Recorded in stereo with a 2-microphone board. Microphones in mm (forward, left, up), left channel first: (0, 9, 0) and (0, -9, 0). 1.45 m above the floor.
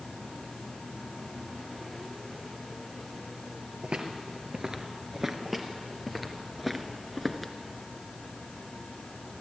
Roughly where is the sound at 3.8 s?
Right.